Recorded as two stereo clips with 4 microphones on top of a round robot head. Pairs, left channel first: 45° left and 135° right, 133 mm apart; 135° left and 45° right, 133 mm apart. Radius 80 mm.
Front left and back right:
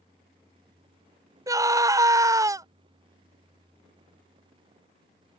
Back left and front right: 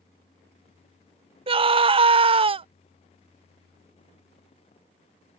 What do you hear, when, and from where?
1.5 s a scream: 75° right